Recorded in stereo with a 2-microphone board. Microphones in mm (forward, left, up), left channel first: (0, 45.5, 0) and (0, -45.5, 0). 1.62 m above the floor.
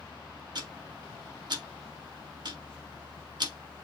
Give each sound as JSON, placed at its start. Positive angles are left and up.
{"t": 0.6, "sound": "ticking", "side_deg": -55, "distance_m": 1.4}